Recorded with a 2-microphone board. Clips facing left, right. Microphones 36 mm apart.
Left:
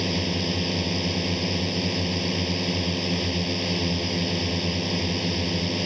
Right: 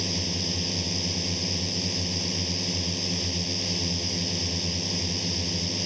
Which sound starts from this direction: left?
A drone, at 0.0 s.